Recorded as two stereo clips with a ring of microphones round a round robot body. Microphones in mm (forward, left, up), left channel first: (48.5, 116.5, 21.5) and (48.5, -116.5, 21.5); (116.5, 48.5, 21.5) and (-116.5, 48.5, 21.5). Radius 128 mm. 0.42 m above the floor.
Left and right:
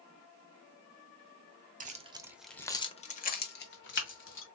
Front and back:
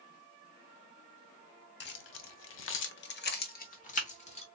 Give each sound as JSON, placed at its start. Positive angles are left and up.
{"t": 1.8, "sound": "keys jangling", "azimuth_deg": -40, "distance_m": 0.9}